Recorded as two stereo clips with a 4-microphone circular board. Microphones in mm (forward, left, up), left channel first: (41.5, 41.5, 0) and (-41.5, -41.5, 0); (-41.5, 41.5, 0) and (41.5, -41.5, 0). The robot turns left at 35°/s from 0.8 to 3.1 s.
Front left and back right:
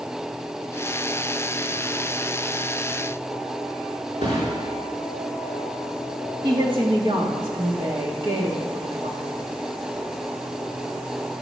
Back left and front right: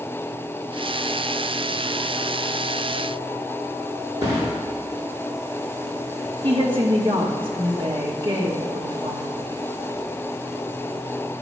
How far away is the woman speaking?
About 2 m.